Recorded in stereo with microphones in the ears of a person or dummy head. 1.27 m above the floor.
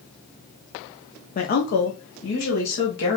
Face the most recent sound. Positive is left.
turn(degrees=75)  # may be behind; listen again after turning